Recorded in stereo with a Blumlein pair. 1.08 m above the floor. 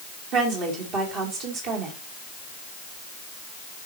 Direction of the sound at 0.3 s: 35° right.